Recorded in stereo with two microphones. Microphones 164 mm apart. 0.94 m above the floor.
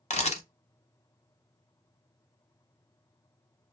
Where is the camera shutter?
45° left (ahead or behind), 0.5 m.